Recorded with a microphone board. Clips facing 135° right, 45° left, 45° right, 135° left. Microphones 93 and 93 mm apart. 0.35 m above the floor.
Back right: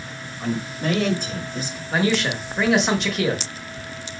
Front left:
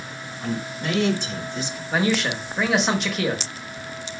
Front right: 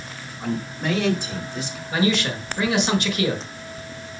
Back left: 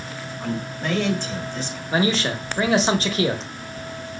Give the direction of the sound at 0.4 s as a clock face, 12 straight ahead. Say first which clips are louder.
Back right 3 dB, front right 1 dB; 4 o'clock.